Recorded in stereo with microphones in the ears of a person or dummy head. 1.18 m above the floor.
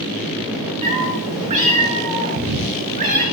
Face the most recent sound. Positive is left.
turn(degrees=-45)  # may be behind; listen again after turning